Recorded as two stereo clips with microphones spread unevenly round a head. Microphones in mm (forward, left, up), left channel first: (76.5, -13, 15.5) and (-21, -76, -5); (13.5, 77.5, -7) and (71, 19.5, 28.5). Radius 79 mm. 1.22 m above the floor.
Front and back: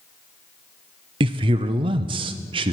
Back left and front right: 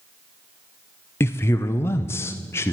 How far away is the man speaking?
About 0.6 m.